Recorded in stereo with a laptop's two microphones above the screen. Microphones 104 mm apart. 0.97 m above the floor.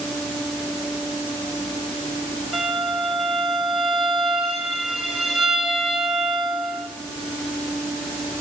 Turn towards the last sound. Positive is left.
turn(degrees=-5)  # may be behind; listen again after turning